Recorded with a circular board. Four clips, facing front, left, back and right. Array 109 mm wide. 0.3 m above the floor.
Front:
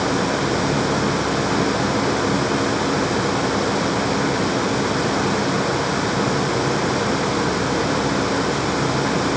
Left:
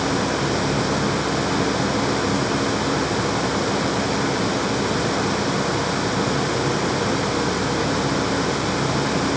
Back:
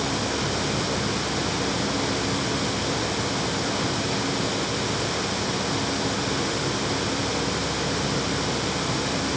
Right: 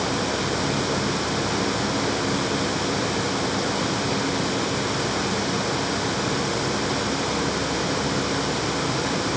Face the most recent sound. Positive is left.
No sound to turn to.